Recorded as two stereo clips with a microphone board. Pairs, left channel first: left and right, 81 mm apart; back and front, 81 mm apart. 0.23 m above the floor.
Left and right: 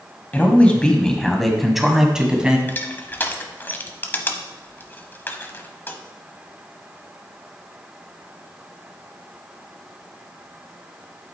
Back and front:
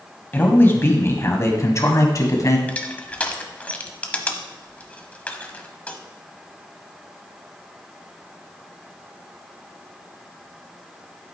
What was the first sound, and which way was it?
A man speaking, 135° left.